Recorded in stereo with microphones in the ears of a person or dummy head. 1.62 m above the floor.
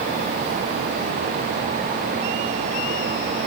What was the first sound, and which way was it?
Only background noise.